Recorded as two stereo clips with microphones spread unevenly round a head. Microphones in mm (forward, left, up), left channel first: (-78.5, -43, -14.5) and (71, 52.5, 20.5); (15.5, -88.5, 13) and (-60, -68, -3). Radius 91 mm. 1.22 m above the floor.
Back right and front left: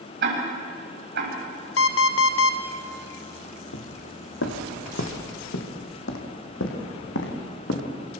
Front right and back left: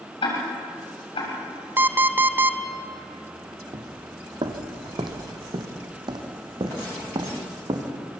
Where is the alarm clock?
125° right, 1.9 m.